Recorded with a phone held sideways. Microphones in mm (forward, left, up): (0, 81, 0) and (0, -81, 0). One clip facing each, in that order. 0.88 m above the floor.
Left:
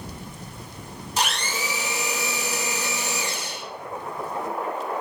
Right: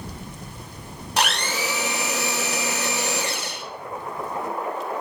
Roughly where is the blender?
Right.